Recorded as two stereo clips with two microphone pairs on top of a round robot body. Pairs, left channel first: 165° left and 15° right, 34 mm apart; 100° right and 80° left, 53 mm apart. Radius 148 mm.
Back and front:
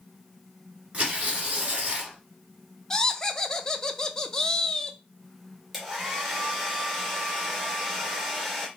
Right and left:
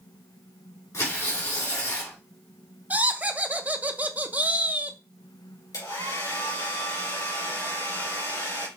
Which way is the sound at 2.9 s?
105° left.